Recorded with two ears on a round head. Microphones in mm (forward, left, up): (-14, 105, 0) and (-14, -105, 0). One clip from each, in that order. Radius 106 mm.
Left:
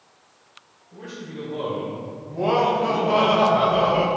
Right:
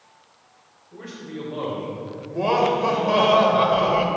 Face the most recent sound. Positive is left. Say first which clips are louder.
# even
turn(degrees=-55)  # may be behind; listen again after turning